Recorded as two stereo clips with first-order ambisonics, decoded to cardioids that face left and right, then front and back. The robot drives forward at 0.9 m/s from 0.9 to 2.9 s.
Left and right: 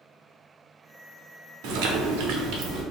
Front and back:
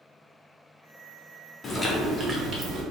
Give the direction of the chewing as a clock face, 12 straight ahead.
2 o'clock.